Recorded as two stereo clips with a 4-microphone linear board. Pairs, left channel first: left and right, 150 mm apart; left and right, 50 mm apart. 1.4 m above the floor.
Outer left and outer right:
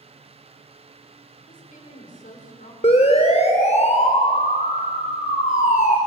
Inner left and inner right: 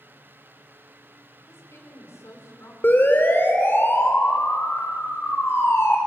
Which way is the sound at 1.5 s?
65° left (ahead or behind).